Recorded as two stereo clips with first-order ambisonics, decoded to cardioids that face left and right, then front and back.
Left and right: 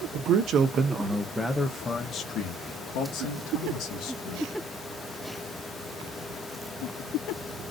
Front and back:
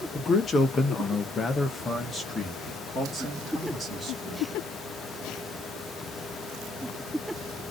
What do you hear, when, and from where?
0.1 s a man speaking: 65° right, 1.1 m; by 4.5 s 90° left, 1.9 m